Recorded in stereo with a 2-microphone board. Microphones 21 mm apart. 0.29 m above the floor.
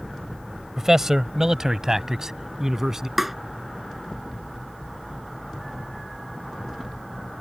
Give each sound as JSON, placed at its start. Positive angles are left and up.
{"t": 0.8, "sound": "a man speaking", "side_deg": -25}
{"t": 3.2, "sound": "tapping", "side_deg": -15}